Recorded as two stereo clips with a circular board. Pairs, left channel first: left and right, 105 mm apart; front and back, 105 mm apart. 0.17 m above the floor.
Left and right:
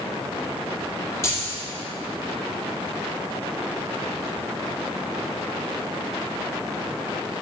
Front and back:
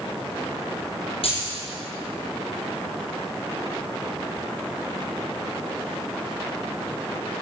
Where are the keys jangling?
25° left, 3.5 m.